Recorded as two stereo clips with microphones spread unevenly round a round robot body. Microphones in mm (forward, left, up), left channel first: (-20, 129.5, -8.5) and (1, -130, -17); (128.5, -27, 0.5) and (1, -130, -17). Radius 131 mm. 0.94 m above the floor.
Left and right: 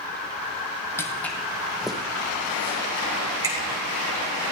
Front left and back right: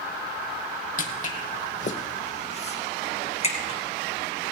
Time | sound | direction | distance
1.0 | footsteps | 15° left | 2 m